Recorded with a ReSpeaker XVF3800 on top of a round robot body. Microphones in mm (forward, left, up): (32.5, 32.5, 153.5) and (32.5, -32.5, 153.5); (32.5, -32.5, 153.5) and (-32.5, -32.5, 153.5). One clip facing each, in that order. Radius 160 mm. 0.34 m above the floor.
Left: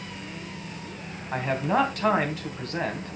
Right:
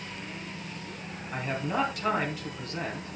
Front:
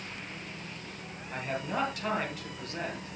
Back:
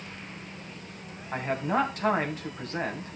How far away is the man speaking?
About 3 m.